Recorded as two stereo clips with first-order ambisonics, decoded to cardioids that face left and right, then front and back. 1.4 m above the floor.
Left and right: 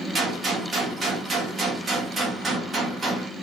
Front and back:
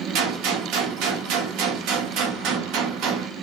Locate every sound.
0.1 s a gunshot: 165° right, 0.8 m